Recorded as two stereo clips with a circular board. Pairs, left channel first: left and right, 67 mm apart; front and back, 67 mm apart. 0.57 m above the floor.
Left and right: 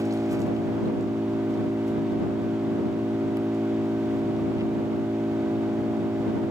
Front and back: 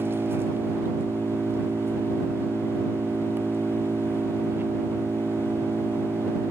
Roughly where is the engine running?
Behind right.